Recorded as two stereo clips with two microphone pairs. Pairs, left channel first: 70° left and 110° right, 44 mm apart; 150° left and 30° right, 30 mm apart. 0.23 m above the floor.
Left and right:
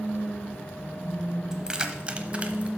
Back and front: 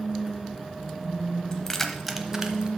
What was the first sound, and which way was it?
Keys jangling, 175° right.